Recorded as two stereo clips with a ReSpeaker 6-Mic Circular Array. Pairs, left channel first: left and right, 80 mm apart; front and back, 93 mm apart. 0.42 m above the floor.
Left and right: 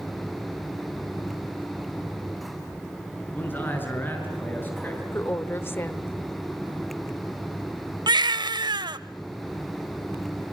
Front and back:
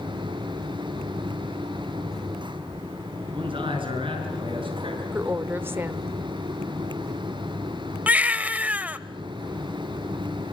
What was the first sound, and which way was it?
A man speaking, 155° left.